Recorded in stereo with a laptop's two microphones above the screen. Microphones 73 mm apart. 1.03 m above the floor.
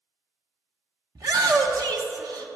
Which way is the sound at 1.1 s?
55° right (ahead or behind).